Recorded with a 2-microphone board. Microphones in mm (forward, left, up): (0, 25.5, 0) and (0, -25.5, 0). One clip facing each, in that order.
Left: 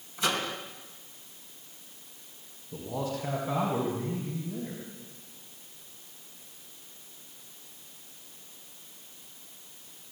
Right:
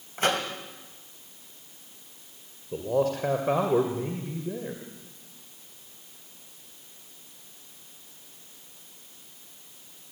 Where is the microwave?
45° right (ahead or behind), 2.5 m.